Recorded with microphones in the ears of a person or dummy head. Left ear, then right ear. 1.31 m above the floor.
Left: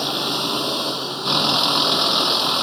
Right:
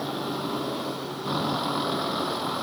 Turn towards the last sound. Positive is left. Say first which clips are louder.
# left 8 dB
turn(degrees=75)  # may be behind; listen again after turning